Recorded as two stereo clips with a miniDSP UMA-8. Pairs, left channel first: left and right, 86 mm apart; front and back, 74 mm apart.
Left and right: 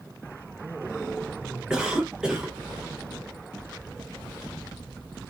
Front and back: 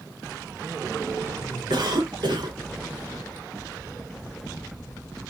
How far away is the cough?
About 0.9 m.